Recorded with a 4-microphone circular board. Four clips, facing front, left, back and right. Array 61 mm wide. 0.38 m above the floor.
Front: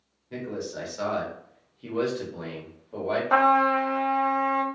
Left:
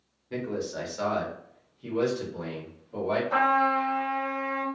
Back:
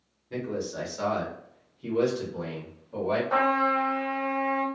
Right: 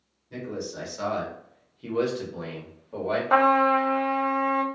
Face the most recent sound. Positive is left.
turn(degrees=-60)